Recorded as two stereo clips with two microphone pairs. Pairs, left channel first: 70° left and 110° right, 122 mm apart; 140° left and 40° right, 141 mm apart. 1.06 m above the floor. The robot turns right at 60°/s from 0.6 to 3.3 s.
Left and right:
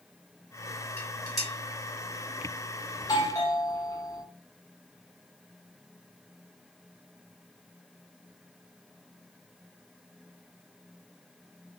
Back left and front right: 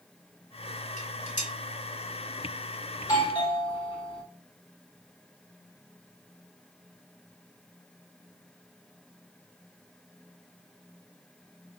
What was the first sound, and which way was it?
Dishes clattering, 130° left.